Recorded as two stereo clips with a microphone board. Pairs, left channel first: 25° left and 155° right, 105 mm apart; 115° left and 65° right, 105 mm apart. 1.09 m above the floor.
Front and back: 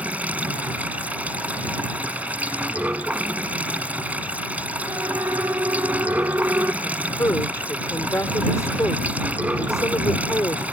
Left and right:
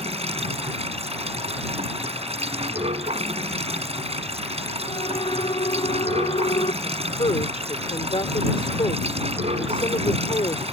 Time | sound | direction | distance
0.0 | running water | 80° right | ?
4.9 | a siren | 140° left | ?
6.8 | a woman speaking | 85° left | ?